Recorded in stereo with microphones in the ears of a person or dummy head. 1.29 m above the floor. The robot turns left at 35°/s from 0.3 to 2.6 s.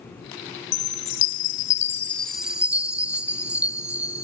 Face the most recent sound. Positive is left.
turn(degrees=-10)